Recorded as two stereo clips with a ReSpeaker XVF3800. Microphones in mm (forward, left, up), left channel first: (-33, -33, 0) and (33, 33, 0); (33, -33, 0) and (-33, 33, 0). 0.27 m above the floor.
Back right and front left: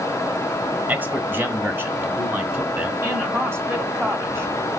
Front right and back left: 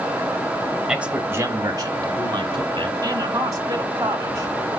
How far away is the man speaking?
About 1.0 m.